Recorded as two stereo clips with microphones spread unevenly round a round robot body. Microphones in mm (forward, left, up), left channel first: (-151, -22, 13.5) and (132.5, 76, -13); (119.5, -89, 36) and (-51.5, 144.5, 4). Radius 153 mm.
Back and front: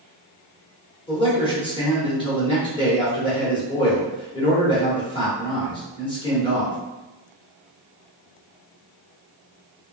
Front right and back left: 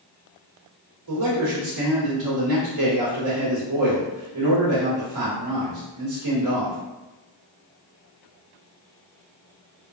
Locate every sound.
1.1 s a man speaking: 125° left, 1.8 m